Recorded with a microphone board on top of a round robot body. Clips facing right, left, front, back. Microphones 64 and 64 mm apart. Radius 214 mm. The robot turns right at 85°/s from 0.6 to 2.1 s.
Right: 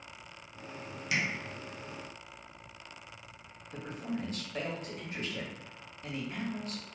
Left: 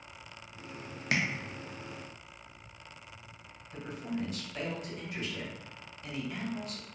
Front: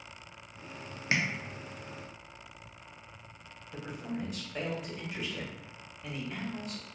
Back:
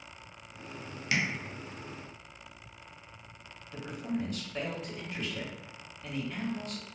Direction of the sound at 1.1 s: 55° left.